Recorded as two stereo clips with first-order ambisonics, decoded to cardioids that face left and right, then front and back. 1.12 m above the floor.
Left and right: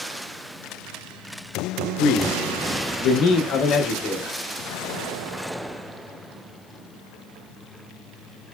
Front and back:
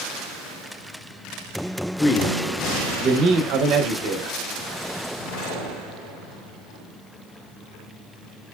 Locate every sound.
2.0 s a man speaking: 65° left, 0.5 m; by 4.4 s 150° left, 1.1 m